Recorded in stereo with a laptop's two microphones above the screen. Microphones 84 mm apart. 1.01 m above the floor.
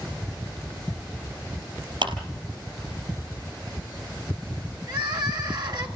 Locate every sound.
2.0 s a clap: 75° right (ahead or behind), 4.5 m
4.9 s crying: 55° right (ahead or behind), 1.8 m